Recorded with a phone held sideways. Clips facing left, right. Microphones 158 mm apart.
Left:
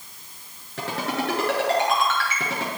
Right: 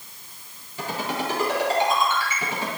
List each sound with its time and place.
0.8 s a ringtone: 90° left, 7.5 m